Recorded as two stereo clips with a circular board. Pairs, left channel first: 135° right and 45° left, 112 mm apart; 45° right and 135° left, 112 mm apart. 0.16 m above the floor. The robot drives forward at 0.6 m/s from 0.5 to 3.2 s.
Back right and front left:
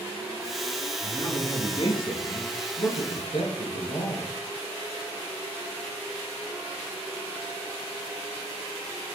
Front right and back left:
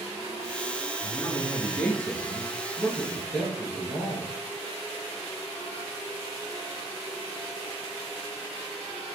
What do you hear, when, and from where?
1.0 s a man speaking: 105° right, 2 m; by 4.3 s 135° right, 2.5 m